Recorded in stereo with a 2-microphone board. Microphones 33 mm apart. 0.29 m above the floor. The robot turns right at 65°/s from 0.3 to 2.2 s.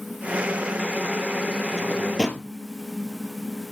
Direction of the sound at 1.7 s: 10° right (ahead or behind).